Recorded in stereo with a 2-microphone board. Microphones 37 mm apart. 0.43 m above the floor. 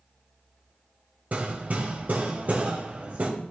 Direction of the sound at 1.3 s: 45° right (ahead or behind).